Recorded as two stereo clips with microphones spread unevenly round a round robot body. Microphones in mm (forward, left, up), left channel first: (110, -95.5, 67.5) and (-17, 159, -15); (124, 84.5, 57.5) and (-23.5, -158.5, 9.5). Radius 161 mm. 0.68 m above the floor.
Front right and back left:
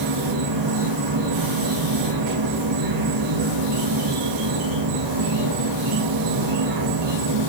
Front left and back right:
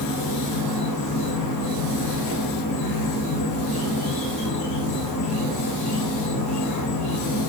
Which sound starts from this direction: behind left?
An insect, at 0.0 s.